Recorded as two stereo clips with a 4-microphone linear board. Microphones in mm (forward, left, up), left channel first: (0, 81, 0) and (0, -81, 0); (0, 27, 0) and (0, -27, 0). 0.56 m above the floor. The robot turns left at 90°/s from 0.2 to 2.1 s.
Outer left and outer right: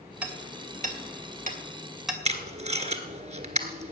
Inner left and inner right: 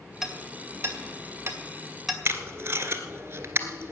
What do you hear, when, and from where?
0.2 s hammering: 5° right (ahead or behind), 2.5 m; by 2.1 s centre (ahead or behind), 2.5 m
2.2 s tape being pulled: 45° right (ahead or behind), 1.4 m